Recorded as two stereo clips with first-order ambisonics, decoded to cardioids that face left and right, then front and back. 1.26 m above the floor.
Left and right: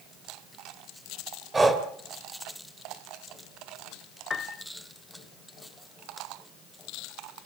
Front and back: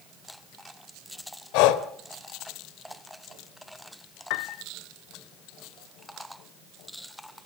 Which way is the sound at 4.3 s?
15° left.